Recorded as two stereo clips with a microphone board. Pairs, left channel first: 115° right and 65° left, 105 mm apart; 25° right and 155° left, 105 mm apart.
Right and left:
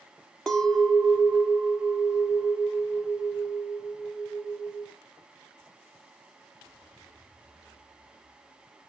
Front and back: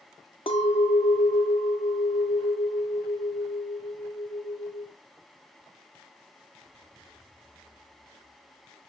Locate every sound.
0.5 s a clink: 30° right, 1.7 m